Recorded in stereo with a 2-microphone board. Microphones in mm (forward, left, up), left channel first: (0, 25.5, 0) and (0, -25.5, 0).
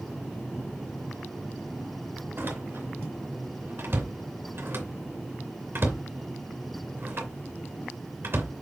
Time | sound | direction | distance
2.4 | a door slam | 50° right (ahead or behind) | 2.5 m